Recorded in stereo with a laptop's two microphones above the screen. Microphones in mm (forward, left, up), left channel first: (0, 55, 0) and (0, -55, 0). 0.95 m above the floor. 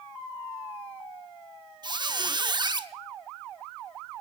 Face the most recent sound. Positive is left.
turn(degrees=-40)  # may be behind; listen again after turning